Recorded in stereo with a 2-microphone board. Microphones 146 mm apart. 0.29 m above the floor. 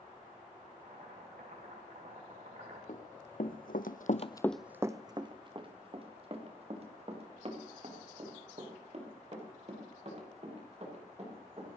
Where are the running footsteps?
65° left (ahead or behind), 2 m; by 11.7 s 50° right (ahead or behind), 10.5 m.